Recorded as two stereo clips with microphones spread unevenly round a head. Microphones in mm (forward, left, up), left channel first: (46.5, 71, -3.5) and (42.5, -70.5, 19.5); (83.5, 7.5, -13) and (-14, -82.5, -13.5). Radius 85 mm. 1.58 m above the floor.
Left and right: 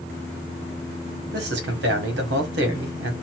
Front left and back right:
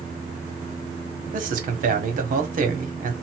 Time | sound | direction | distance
1.3 | a man speaking | 115° right | 1.7 m